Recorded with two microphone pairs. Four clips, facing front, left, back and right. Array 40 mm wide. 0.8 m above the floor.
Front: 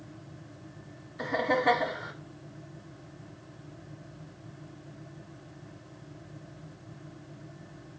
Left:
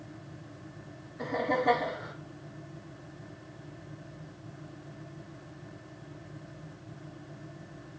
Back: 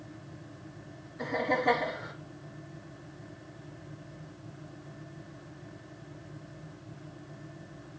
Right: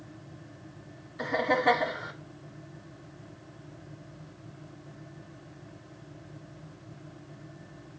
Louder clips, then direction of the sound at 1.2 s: Right 3 dB, front 2 dB; 55° right.